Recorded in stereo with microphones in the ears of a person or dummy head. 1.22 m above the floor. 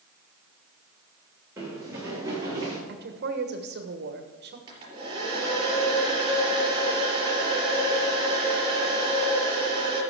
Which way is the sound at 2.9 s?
55° right (ahead or behind).